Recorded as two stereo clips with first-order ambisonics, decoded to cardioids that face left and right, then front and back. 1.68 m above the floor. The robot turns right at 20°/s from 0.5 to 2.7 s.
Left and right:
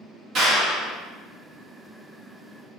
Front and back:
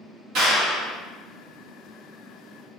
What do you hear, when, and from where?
0.3 s a clap: 145° right, 1.9 m; by 0.9 s 135° right, 1.9 m